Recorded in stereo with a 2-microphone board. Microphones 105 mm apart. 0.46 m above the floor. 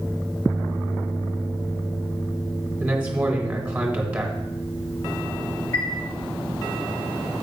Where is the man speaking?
15° right (ahead or behind), 2 m.